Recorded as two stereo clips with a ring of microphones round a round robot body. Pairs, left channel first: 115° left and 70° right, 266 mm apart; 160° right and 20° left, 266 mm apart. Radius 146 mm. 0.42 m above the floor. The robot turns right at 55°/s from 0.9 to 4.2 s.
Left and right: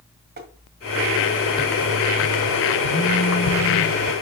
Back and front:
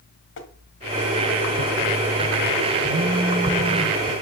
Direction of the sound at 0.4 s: 120° right.